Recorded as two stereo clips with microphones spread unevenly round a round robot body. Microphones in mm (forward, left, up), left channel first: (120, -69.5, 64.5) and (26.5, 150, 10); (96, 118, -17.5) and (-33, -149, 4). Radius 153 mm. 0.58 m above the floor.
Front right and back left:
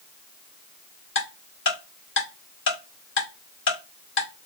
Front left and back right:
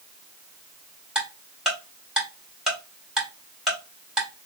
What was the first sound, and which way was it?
Ticking, 25° right.